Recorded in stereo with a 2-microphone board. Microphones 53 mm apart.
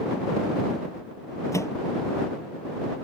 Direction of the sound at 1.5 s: 65° left (ahead or behind).